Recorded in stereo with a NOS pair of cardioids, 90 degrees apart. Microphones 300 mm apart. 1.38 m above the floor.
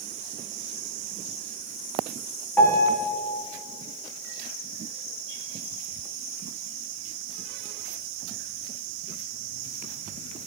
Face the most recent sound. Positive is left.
turn(degrees=5)